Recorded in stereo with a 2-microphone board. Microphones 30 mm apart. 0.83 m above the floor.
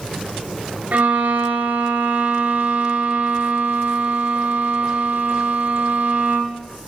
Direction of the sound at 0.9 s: 65° right (ahead or behind).